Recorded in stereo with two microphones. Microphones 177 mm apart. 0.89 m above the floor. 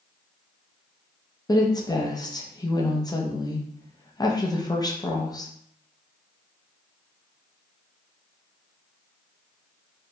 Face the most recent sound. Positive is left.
turn(degrees=25)  # may be behind; listen again after turning